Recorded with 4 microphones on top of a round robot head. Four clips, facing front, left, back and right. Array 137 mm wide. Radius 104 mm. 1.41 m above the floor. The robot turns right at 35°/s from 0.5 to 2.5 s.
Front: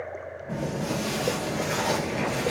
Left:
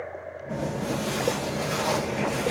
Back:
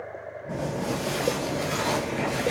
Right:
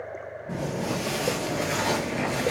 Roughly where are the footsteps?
Behind right.